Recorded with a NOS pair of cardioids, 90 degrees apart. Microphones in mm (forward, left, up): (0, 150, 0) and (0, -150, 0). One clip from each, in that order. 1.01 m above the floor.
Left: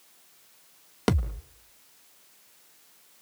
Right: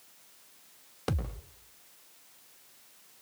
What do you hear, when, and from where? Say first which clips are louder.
1.1 s a thud: left 8 dB; 70° left, 1.7 m